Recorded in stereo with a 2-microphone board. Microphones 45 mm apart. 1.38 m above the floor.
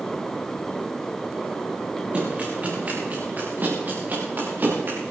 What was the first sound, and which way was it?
Running footsteps, 30° right (ahead or behind).